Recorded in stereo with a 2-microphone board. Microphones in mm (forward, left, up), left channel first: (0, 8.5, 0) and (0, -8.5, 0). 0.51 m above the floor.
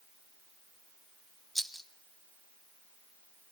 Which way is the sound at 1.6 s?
5° right (ahead or behind).